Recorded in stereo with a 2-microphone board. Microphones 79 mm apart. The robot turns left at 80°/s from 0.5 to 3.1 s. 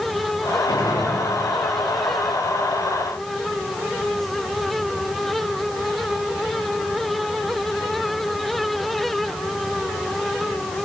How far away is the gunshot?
About 7.5 m.